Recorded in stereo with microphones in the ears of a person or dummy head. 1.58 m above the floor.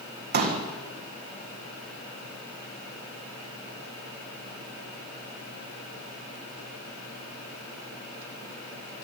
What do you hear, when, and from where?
0.3 s a pop: 50° right (ahead or behind), 2.5 m